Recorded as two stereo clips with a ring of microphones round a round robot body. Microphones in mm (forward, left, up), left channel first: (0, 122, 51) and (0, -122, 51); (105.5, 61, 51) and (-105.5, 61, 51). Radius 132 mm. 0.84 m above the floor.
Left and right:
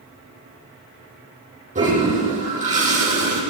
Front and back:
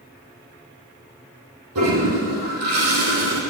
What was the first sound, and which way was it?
A toilet flushing, 150° right.